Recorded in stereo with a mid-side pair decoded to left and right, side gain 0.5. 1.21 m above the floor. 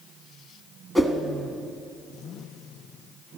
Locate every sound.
0.9 s a whoosh: 10° right, 1.4 m